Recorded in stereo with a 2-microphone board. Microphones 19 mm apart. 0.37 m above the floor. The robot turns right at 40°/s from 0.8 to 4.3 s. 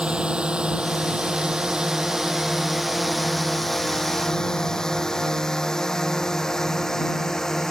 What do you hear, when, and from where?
0.0 s a drone: 80° right; by 7.7 s 35° left (ahead or behind)